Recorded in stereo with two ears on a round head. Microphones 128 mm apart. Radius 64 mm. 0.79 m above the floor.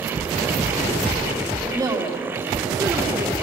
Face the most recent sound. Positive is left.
turn(degrees=-25)  # may be behind; listen again after turning